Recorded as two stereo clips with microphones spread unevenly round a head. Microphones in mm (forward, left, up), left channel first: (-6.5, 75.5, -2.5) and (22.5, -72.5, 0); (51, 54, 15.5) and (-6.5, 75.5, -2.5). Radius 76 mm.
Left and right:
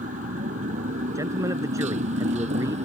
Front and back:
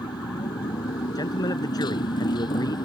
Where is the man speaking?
5° right.